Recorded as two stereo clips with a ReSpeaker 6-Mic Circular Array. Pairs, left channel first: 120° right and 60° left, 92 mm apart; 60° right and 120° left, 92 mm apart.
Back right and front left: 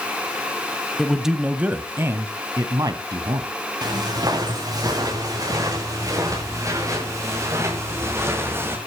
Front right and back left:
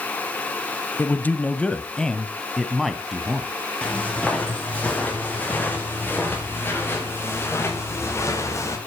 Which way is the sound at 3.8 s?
20° left.